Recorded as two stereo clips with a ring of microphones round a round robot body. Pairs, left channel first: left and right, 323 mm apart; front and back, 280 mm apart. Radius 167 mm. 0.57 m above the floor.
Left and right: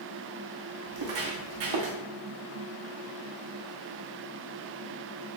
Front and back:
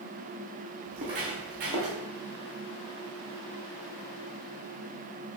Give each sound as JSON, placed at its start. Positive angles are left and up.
{"t": 0.9, "sound": "footsteps", "azimuth_deg": -105, "distance_m": 1.9}